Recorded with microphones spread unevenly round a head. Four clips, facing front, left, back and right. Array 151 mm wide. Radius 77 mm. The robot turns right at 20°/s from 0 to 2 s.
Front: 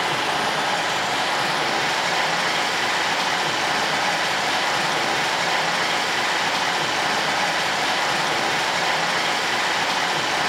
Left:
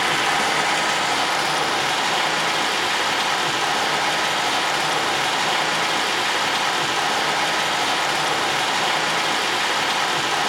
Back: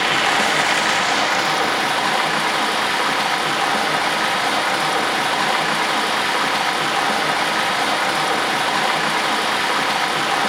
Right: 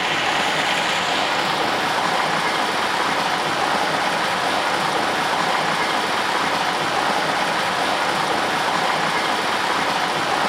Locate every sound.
0.0 s running water: 165° right, 0.8 m; by 10.5 s 125° right, 0.8 m